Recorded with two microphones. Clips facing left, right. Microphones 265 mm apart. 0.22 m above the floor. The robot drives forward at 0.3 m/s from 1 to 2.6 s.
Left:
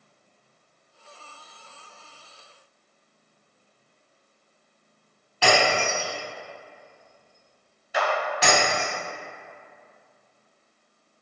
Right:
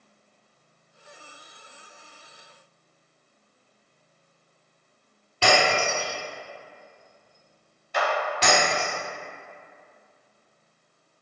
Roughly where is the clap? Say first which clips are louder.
Even; centre.